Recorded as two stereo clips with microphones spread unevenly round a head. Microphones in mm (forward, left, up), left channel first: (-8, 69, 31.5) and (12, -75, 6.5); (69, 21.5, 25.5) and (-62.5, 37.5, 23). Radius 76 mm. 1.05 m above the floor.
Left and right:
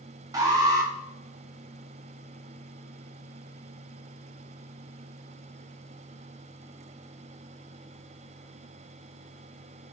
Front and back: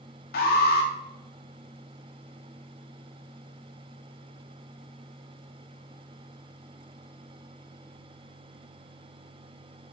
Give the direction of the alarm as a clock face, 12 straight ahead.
1 o'clock.